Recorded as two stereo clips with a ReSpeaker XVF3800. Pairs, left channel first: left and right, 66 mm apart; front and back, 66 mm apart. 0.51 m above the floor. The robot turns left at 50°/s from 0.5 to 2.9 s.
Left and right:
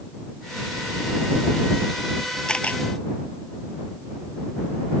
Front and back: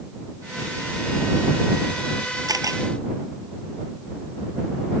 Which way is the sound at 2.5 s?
170° left.